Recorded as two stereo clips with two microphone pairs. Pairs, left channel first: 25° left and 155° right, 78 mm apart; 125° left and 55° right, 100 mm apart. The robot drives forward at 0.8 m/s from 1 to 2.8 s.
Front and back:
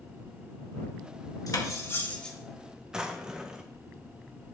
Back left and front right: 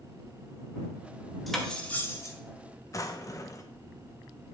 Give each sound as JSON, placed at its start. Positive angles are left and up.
{"t": 1.5, "sound": "cutlery clinking", "azimuth_deg": 35, "distance_m": 1.0}
{"t": 2.9, "sound": "a drawer", "azimuth_deg": 130, "distance_m": 0.5}